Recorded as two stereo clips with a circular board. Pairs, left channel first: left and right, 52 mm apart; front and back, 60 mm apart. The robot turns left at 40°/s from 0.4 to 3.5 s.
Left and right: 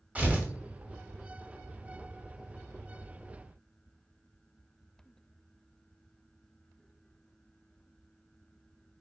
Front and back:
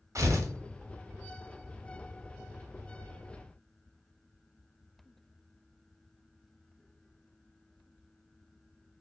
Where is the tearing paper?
150° right, 0.8 m.